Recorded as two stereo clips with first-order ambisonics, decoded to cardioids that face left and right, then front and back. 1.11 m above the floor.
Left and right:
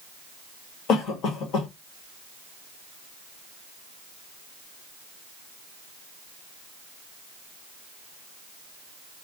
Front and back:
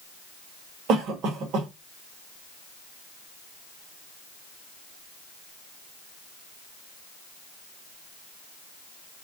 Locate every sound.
0.9 s a cough: 140° left, 1.4 m